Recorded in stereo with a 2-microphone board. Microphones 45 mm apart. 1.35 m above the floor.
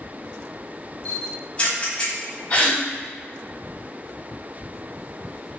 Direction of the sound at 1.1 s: 30° left (ahead or behind).